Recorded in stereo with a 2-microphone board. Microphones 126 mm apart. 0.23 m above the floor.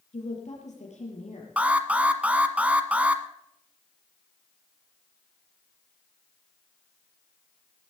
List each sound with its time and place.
0.1 s a woman speaking: 70° left (ahead or behind), 6 m
1.6 s an alarm: 10° right (ahead or behind), 1.3 m